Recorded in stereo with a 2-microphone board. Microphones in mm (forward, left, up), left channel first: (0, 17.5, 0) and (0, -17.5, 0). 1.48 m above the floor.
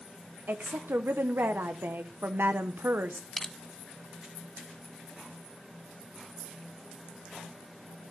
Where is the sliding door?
I don't hear a sliding door.